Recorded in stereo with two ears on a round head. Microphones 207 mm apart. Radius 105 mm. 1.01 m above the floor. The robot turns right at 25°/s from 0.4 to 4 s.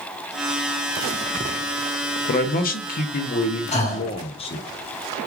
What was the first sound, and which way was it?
A man speaking, 95° left.